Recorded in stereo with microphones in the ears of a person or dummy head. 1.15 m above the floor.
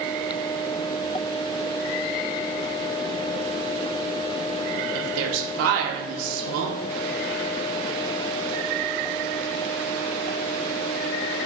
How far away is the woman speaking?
About 0.5 m.